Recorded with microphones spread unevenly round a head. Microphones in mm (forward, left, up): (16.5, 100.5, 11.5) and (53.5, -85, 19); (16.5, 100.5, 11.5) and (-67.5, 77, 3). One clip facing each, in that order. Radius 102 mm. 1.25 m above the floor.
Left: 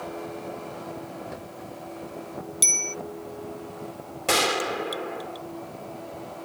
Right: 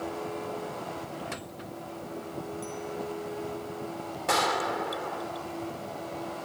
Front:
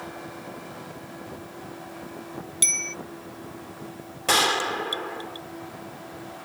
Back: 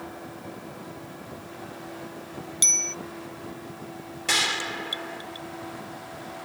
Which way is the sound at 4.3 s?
50° left.